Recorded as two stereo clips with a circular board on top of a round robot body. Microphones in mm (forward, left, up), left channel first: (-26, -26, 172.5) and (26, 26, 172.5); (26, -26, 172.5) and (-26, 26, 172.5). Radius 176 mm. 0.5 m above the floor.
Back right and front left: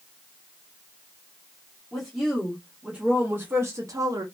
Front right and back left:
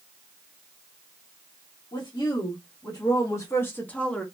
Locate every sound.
1.9 s a woman speaking: 45° right, 1.4 m; by 4.2 s 35° left, 1.0 m